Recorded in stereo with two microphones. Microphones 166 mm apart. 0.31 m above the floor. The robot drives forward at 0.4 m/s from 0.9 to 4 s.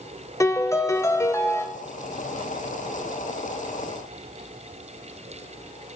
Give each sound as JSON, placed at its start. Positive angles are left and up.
{"t": 0.4, "sound": "a piano", "side_deg": 20, "distance_m": 1.0}